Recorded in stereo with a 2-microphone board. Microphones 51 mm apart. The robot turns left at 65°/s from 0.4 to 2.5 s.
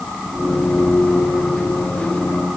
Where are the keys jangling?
I don't hear keys jangling.